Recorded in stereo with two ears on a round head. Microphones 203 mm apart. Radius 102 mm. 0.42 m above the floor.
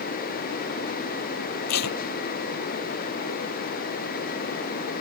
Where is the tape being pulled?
80° left.